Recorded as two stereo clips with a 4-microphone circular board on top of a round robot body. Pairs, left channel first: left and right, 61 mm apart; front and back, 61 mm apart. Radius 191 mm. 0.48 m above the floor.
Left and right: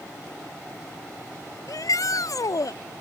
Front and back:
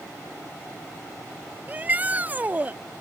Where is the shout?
115° left.